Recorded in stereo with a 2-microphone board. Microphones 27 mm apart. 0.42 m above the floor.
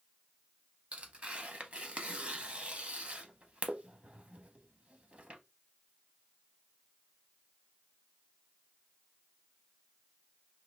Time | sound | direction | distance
0.9 | tearing paper | 50° right (ahead or behind) | 0.6 m